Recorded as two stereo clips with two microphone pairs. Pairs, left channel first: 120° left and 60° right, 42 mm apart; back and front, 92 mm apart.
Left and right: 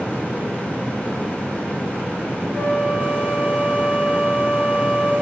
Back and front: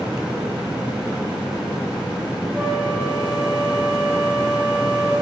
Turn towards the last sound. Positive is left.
turn(degrees=90)